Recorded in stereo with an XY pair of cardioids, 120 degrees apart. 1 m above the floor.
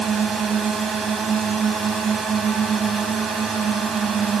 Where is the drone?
40° right.